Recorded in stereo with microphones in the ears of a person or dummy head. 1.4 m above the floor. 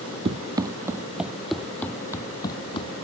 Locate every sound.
0.2 s running footsteps: 25° right (ahead or behind); by 3.0 s 30° left (ahead or behind)